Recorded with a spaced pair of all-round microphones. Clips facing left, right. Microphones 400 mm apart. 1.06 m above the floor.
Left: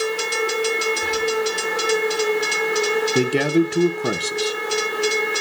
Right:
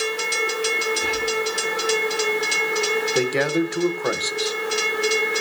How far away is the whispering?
About 5.5 m.